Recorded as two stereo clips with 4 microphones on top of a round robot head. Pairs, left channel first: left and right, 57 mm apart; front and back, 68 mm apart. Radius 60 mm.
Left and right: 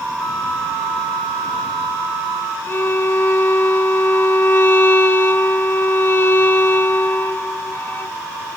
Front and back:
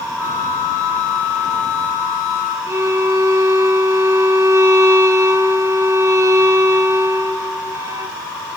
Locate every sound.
0.2 s a flute: 50° left, 3.5 m
2.7 s a violin: 140° left, 2.0 m